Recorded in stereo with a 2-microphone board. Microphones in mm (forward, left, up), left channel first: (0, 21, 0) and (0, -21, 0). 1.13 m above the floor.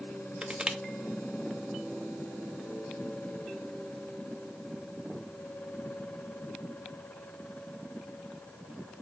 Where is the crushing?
20° right (ahead or behind), 0.6 m.